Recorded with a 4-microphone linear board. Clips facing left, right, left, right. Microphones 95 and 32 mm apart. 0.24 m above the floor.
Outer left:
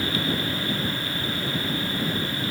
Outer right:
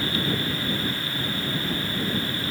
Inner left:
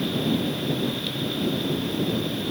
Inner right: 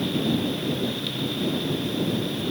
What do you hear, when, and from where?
Only background noise.